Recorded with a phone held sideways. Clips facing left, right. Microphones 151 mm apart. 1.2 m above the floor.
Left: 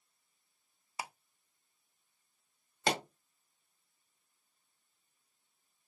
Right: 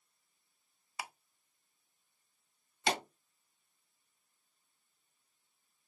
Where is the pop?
45° left (ahead or behind), 1.3 m.